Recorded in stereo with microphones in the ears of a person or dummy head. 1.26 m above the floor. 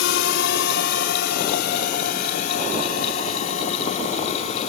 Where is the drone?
70° left (ahead or behind); by 4.7 s 40° left (ahead or behind).